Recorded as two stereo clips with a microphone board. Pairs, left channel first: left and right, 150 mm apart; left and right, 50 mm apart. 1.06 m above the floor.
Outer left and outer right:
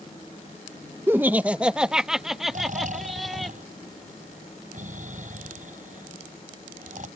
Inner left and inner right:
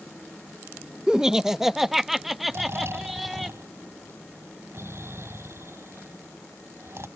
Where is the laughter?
15° right (ahead or behind); by 3.5 s centre (ahead or behind).